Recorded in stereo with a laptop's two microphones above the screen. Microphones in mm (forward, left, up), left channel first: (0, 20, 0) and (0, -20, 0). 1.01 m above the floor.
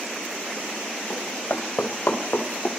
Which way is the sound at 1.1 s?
55° left (ahead or behind).